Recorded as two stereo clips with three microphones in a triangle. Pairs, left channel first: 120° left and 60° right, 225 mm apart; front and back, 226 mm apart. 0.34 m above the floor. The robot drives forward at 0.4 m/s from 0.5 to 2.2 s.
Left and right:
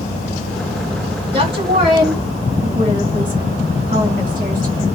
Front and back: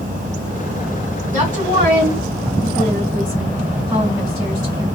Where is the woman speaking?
100° right, 2.5 m; by 4.8 s 110° right, 2.5 m.